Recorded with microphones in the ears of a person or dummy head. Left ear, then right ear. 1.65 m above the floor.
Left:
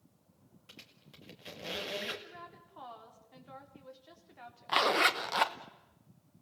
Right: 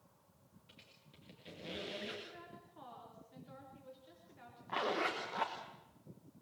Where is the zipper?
45° left (ahead or behind), 1.0 m.